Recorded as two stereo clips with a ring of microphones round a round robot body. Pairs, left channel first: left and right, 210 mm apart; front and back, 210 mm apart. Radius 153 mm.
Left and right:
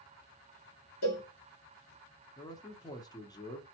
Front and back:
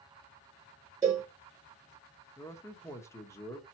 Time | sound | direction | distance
1.0 | a cowbell | 105° left | 3 m
2.4 | a man speaking | 55° left | 1.1 m